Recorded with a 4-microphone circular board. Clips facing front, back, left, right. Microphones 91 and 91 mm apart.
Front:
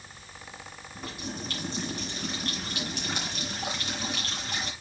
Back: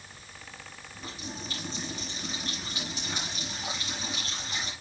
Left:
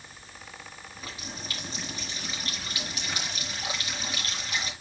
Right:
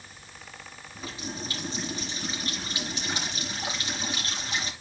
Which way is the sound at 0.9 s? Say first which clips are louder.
Front 3 dB, right 6 dB; 25° right.